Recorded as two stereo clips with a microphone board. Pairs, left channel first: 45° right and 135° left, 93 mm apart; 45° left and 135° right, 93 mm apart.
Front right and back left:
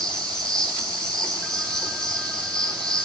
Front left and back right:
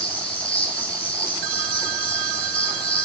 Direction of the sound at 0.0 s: 35° left.